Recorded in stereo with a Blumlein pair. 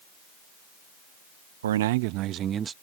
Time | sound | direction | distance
1.6 | a man speaking | 65° right | ?